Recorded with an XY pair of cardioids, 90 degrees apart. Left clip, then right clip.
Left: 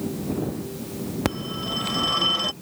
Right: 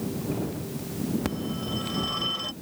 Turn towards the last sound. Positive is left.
turn(degrees=60)